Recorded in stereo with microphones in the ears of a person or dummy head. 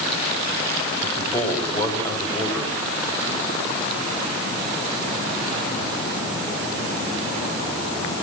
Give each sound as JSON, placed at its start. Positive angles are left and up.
{"t": 1.0, "sound": "a man speaking", "side_deg": 20, "distance_m": 7.0}